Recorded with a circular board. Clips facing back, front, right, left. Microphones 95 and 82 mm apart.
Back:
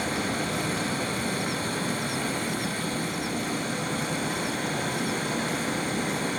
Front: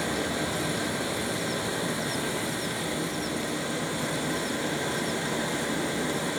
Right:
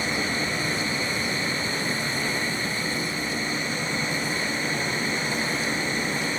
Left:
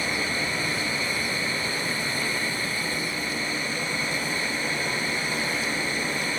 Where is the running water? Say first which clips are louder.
Even, right 1 dB; 160° right, 6.5 m.